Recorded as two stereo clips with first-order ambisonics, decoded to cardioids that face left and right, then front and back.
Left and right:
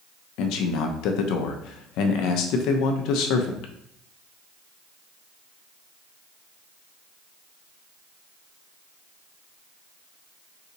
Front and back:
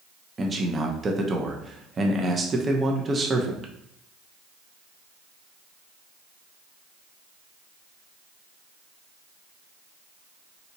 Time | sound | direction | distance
0.4 | a man speaking | 110° left | 0.5 m